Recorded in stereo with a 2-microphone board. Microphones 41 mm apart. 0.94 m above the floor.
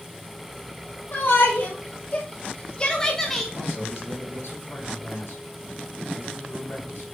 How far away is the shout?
About 1.4 m.